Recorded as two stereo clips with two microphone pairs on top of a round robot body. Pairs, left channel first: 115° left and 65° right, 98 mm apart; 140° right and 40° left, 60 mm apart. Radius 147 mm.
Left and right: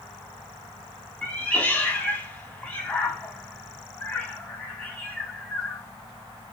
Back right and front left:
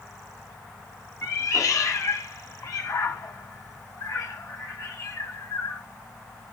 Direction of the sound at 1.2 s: 165° right.